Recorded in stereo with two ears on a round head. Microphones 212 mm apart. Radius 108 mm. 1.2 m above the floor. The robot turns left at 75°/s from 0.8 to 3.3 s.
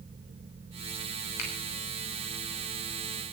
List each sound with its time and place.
1.4 s a finger snap: 80° left, 6.5 m; by 1.5 s 70° left (ahead or behind), 6.5 m